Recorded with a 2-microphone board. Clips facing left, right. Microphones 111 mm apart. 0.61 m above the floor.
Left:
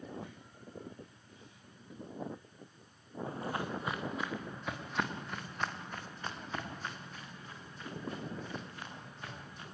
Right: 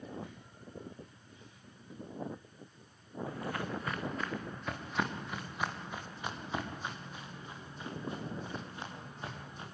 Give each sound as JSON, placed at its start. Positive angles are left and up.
{"t": 3.3, "sound": "footsteps", "side_deg": 30, "distance_m": 2.5}